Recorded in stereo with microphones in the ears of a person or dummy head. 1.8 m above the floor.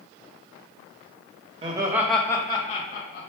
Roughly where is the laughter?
Right.